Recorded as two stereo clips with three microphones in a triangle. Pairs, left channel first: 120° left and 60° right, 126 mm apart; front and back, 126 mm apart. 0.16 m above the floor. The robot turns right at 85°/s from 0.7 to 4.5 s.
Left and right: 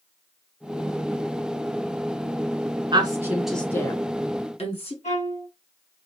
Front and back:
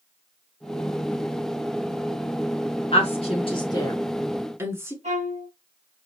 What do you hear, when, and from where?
2.9 s a woman speaking: 20° right, 1.6 m; by 4.9 s 115° left, 1.6 m
5.0 s a violin: 150° left, 2.5 m